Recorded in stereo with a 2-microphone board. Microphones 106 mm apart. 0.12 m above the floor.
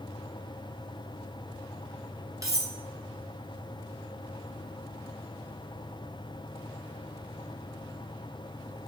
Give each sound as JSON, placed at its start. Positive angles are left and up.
{"t": 2.4, "sound": "cutlery clinking", "side_deg": -35, "distance_m": 0.7}